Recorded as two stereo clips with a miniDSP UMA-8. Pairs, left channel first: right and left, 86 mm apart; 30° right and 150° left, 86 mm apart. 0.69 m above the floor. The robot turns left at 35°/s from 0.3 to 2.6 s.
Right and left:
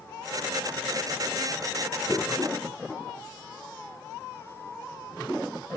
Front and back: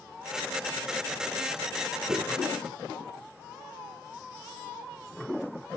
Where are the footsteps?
165° right, 2.5 m; by 2.3 s 175° right, 2.5 m.